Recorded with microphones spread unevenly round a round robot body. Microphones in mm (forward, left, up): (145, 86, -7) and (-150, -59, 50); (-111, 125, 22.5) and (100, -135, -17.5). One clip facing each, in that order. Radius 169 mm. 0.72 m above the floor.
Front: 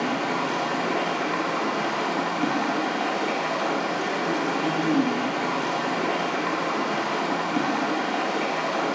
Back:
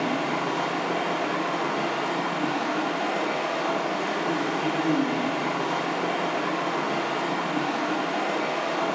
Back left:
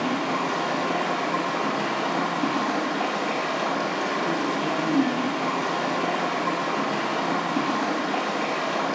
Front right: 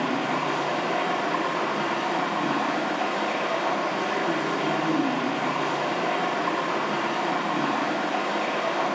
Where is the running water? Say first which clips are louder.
Even, back left 1 dB; 80° left, 2.5 m.